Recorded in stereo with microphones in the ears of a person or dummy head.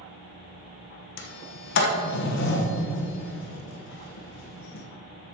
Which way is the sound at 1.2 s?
65° left (ahead or behind).